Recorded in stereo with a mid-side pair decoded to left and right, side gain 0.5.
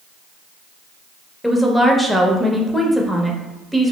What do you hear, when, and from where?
1.4 s a woman speaking: 5° left, 0.7 m